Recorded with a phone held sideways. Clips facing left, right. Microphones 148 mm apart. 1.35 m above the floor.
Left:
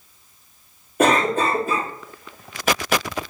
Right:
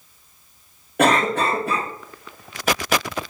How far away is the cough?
About 2.5 m.